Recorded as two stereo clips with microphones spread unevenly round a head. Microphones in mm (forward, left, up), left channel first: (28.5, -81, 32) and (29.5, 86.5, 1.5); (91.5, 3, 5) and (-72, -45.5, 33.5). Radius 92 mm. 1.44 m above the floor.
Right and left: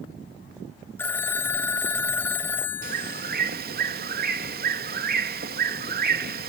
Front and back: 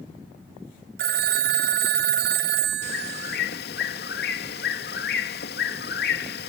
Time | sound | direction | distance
1.0 | a phone ringing | 160° right | ?
2.8 | a bird | 55° left | ?